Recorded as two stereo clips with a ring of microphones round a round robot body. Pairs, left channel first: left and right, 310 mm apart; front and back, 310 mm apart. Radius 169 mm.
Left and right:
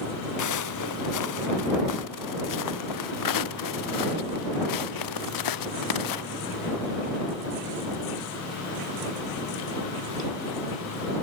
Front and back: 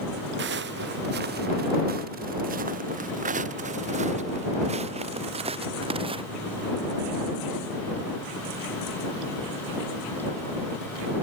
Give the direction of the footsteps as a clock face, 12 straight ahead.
8 o'clock.